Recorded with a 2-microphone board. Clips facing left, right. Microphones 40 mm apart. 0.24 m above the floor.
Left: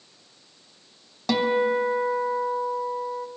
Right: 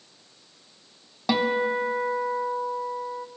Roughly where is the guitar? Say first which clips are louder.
Left 2 dB; centre.